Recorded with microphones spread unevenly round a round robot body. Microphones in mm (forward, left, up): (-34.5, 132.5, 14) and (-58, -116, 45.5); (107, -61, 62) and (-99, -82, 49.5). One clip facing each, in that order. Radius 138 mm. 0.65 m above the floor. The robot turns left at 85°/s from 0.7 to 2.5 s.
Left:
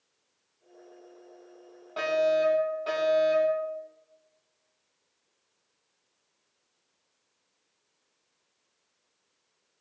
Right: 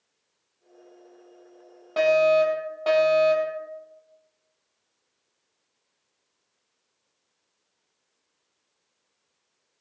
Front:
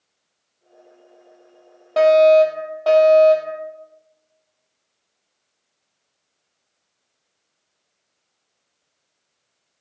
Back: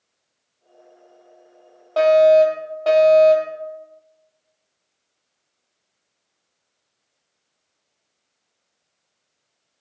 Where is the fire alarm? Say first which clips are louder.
Right 6 dB, front 1 dB; 60° right, 7.5 m; by 3.6 s 105° right, 7.5 m.